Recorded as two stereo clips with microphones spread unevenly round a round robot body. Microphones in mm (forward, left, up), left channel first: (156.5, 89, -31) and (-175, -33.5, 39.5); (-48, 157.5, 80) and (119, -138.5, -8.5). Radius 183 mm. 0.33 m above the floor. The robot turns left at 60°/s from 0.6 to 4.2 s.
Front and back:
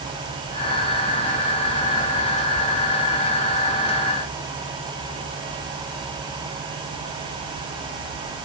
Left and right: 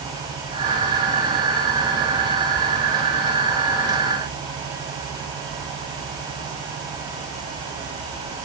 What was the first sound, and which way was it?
Only background noise.